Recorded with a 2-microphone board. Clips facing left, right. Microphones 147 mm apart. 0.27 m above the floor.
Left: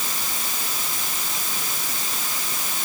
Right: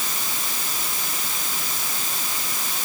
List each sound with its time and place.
Only background noise.